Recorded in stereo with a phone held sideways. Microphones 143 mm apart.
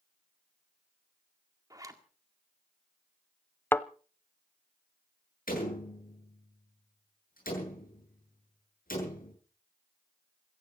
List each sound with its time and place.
1.7 s a zipper: 25° right (ahead or behind), 1.9 m
3.7 s a thud: 15° left (ahead or behind), 0.6 m
5.5 s a door slam: 85° left, 8.5 m